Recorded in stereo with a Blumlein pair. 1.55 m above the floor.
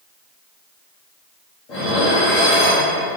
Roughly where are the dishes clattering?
Ahead left.